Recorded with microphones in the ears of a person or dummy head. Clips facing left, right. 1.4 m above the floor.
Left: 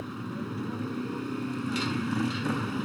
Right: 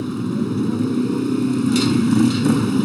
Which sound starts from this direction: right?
A motorcycle, at 0.0 s.